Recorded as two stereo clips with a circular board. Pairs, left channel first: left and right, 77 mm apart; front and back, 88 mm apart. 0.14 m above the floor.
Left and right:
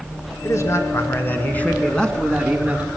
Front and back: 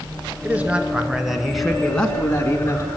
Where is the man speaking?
115° left, 2.5 m; by 2.9 s 25° right, 1.9 m.